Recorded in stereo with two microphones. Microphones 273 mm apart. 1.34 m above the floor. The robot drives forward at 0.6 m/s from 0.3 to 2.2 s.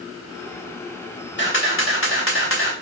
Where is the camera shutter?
45° left (ahead or behind), 1.2 m; by 2.7 s 50° left (ahead or behind), 1.1 m.